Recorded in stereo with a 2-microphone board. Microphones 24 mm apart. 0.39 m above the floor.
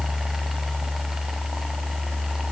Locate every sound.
Only background noise.